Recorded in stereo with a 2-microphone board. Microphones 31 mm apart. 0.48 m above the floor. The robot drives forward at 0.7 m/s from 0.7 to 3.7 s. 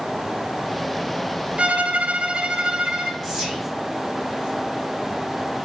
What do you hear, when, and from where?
1.6 s a violin: 40° right (ahead or behind), 0.5 m; by 3.1 s 20° right (ahead or behind), 1.0 m
3.2 s whispering: 5° right (ahead or behind), 1.5 m